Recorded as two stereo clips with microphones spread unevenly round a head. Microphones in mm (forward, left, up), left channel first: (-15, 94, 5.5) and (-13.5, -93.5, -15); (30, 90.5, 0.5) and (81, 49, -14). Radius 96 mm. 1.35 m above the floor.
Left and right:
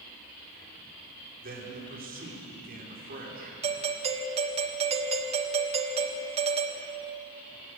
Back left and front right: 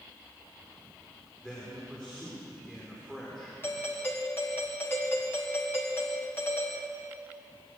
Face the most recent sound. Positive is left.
turn(degrees=-140)